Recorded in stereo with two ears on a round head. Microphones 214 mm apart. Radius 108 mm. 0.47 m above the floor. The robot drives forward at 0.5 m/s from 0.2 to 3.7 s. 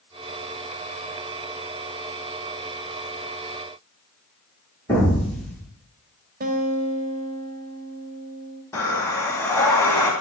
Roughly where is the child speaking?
No child speaking in this recording.